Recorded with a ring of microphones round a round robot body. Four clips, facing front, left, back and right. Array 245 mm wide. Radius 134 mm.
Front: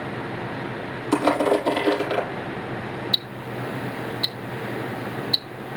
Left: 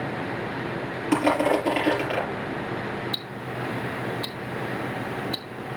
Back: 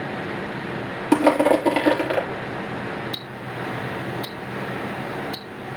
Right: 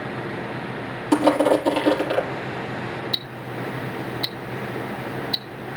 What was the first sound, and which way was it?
Crushing, 165° right.